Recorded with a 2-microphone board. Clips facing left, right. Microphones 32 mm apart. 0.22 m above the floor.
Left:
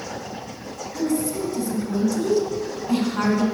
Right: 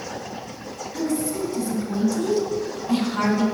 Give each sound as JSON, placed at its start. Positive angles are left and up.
{"t": 0.9, "sound": "a woman speaking", "side_deg": -30, "distance_m": 2.0}